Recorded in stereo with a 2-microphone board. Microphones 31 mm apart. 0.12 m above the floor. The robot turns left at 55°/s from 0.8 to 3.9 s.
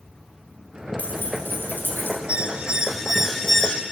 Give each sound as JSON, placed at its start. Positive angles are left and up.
{"t": 1.0, "sound": "keys jangling", "azimuth_deg": 135, "distance_m": 4.0}
{"t": 2.3, "sound": "an alarm", "azimuth_deg": -130, "distance_m": 1.8}